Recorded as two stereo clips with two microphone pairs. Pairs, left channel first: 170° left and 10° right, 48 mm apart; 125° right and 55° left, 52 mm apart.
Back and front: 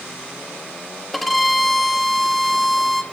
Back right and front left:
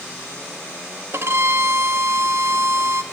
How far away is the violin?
About 0.6 m.